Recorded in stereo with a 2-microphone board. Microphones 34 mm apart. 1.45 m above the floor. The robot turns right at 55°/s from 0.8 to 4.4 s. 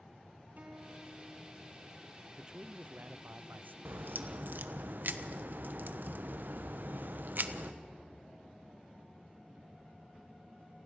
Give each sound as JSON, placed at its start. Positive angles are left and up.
{"t": 0.6, "sound": "a guitar", "azimuth_deg": -50, "distance_m": 4.0}
{"t": 2.3, "sound": "a man speaking", "azimuth_deg": -160, "distance_m": 0.5}
{"t": 3.9, "sound": "a crack", "azimuth_deg": -95, "distance_m": 1.1}